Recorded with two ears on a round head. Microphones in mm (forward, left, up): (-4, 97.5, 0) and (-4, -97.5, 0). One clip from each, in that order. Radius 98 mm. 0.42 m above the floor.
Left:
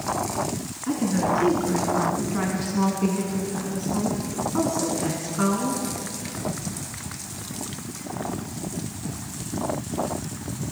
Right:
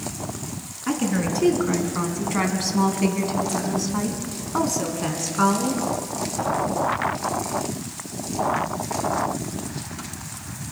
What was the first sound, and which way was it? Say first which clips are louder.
A woman speaking: left 1 dB; 60° right (ahead or behind).